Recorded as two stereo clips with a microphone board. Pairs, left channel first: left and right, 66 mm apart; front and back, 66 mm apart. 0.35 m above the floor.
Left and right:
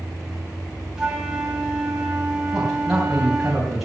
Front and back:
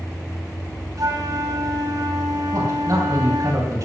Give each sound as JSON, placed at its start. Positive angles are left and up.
{"t": 1.0, "sound": "a flute", "azimuth_deg": -170, "distance_m": 2.5}
{"t": 2.5, "sound": "a man speaking", "azimuth_deg": 180, "distance_m": 2.5}